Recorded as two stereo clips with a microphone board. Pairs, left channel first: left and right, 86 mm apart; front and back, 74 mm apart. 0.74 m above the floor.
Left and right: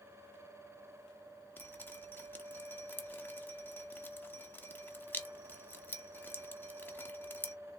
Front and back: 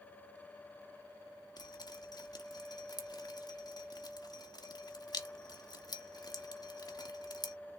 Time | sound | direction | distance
1.6 | dripping | 20° left | 0.8 m